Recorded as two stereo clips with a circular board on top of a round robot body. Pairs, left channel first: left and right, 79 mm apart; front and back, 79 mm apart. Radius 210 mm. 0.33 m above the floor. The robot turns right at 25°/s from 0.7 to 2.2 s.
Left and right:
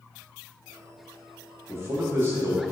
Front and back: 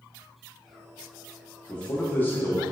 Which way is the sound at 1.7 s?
65° right.